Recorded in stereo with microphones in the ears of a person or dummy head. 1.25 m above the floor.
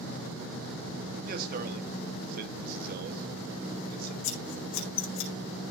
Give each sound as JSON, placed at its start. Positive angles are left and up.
{"t": 1.2, "sound": "a man speaking", "side_deg": -50, "distance_m": 1.8}
{"t": 4.2, "sound": "scissors", "side_deg": 70, "distance_m": 4.5}